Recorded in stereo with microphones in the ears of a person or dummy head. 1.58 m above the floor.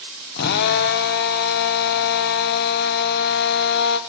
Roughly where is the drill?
Left.